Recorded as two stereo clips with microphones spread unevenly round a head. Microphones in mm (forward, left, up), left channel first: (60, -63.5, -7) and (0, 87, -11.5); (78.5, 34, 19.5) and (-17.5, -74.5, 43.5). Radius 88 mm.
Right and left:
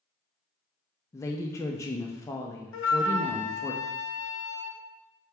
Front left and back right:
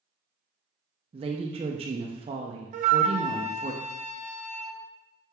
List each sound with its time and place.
1.1 s a woman speaking: 130° right, 0.5 m
2.7 s a flute: 90° right, 0.5 m